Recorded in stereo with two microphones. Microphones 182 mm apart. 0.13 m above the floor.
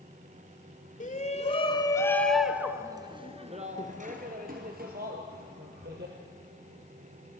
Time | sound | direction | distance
1.0 | a shout | 45° left (ahead or behind) | 1.4 m